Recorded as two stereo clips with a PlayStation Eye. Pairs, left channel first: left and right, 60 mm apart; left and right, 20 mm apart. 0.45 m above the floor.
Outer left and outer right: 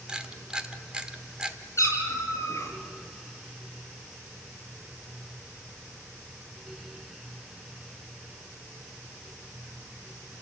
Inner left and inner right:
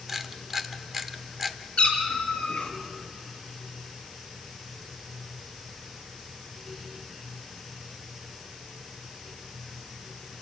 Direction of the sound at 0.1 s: 15° right (ahead or behind).